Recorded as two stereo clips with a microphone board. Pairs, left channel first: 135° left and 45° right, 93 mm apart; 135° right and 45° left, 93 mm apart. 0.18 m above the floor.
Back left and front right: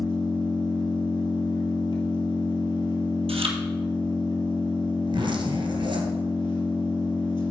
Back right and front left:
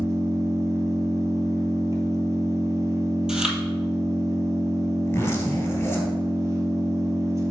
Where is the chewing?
40° right, 1.3 m.